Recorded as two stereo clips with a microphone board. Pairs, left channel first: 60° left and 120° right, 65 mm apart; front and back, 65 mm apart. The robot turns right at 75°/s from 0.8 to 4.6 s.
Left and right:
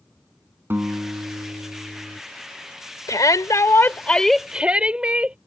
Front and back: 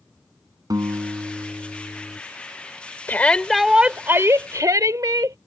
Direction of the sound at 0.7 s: 170° right.